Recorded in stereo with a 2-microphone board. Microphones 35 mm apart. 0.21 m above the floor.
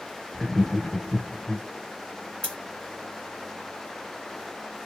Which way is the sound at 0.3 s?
5° left (ahead or behind).